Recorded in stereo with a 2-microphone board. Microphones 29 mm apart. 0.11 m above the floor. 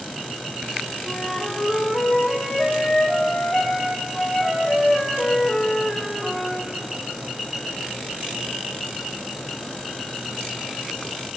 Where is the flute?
25° left (ahead or behind), 1.5 m.